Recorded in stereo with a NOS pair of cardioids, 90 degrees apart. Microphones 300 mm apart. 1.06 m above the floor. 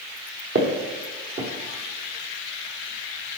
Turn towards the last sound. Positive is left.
turn(degrees=-45)